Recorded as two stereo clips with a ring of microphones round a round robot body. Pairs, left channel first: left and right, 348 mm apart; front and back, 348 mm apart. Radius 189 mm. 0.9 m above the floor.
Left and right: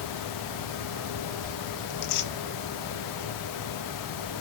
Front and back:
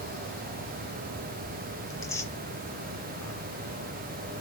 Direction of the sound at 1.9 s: 80° left.